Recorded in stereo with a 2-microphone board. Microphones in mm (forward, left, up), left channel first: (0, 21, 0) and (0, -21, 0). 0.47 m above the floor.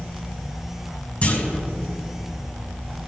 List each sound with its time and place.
1.2 s a clunk: 40° left (ahead or behind), 3 m